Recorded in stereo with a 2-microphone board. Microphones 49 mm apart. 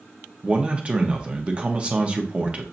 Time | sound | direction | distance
0.4 | a man speaking | 25° right (ahead or behind) | 0.8 m